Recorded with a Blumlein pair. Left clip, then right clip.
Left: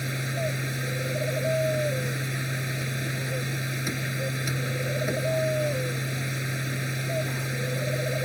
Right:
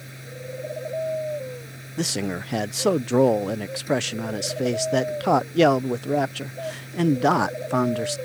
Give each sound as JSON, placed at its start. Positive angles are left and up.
{"t": 0.0, "sound": "a machine running", "azimuth_deg": 60}
{"t": 2.0, "sound": "a man speaking", "azimuth_deg": -45}